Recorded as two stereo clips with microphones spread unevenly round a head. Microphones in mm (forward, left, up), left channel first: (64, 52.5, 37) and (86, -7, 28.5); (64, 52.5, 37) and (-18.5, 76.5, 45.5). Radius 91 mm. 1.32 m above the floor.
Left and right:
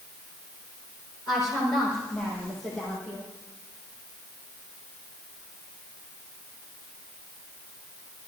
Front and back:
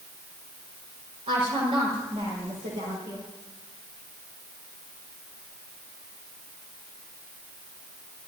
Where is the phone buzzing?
No phone buzzing in this recording.